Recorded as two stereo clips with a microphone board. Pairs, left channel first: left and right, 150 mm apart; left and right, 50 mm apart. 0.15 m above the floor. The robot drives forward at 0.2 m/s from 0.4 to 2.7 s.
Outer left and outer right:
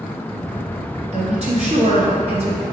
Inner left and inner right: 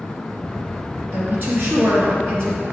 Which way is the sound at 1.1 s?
50° right (ahead or behind).